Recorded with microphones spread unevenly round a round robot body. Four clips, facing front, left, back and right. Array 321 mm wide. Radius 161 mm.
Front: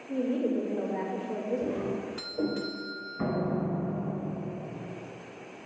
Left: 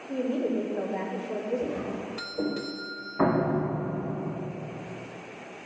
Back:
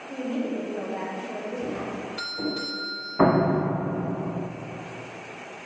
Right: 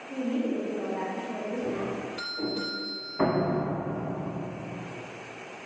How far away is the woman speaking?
About 2.0 m.